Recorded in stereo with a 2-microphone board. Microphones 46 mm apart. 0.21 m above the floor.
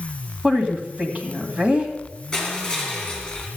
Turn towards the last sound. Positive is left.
turn(degrees=15)  # may be behind; listen again after turning